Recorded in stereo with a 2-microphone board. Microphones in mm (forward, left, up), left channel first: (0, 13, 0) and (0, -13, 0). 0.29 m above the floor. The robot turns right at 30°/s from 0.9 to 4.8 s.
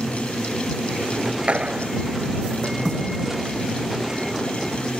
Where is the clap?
60° right (ahead or behind); by 1.9 s 50° right (ahead or behind).